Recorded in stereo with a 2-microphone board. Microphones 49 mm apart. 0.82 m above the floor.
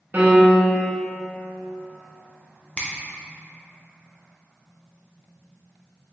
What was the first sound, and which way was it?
A piano, 40° right (ahead or behind).